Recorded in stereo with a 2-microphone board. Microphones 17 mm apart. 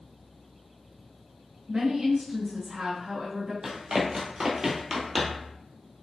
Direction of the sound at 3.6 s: 45° right (ahead or behind).